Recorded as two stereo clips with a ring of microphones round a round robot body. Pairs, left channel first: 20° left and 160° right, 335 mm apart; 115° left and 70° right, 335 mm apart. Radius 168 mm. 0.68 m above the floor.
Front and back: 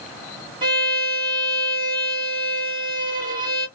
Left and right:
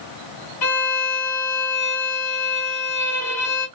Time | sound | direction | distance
0.6 | a violin | 130° left | 1.4 m